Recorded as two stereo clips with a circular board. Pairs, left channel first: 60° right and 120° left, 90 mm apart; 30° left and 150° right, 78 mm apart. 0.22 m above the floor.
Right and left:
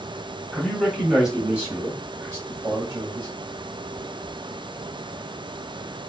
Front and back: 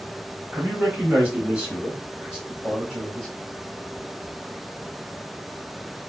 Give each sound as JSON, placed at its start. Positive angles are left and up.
{"t": 0.5, "sound": "a man speaking", "azimuth_deg": -130, "distance_m": 1.5}